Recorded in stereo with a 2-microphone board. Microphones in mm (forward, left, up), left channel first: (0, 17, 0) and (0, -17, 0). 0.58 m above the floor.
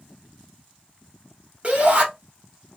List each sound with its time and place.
1.6 s a shout: 40° right (ahead or behind), 1.9 m